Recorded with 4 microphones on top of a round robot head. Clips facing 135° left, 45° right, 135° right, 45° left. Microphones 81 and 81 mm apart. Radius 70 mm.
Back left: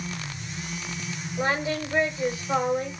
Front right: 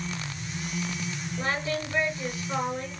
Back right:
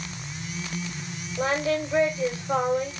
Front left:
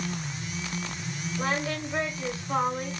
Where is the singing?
155° right, 1.2 m.